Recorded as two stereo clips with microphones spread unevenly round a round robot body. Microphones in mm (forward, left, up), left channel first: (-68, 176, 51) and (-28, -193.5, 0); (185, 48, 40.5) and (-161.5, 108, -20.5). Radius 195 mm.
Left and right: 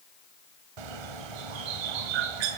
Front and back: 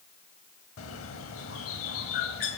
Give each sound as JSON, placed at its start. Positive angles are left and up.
{"t": 0.8, "sound": "a bird", "azimuth_deg": -70, "distance_m": 1.7}